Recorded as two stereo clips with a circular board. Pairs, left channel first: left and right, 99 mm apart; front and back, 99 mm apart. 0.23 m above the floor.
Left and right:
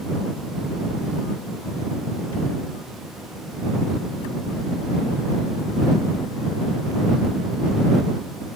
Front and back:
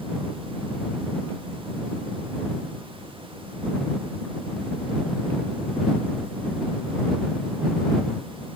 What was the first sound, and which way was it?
Only background noise.